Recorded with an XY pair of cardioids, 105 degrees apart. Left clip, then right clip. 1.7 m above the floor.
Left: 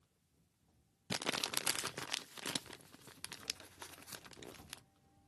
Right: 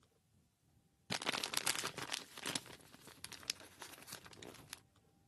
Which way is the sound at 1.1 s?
25° left.